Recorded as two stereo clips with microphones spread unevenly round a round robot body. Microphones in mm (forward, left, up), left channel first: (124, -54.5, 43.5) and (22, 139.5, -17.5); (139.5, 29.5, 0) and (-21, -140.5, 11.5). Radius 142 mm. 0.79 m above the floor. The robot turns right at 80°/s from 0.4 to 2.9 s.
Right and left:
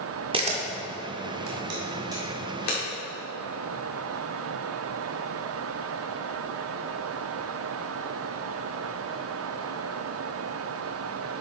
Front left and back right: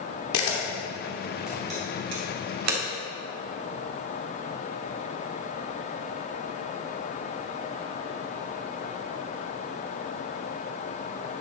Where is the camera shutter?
55° left, 1.7 m; by 2.8 s 115° right, 1.7 m.